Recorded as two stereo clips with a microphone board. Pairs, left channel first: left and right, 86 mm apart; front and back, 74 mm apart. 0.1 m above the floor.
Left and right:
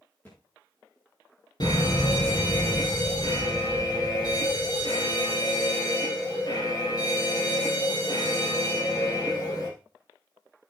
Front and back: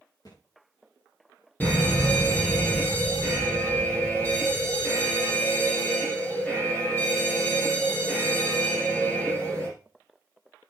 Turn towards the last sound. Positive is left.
turn(degrees=60)